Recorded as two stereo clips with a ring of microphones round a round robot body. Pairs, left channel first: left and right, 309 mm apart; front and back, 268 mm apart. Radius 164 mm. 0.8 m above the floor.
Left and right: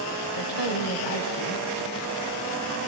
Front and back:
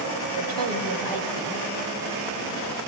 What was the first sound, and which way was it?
A woman speaking, 150° left.